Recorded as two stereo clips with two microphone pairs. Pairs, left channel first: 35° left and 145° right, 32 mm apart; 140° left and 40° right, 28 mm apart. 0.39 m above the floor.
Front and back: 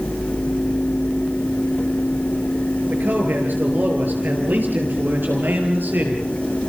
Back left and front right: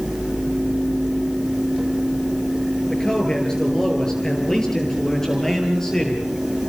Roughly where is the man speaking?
Behind right.